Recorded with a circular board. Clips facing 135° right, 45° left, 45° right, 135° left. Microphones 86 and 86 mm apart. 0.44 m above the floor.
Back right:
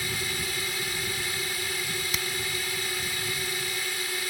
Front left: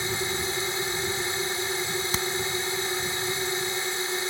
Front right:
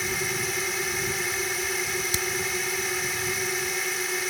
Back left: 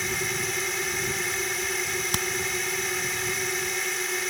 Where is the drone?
40° left.